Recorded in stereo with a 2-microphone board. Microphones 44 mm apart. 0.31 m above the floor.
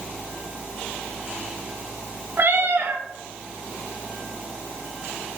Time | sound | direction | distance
2.4 | a cat meowing | 55° right (ahead or behind) | 1.6 m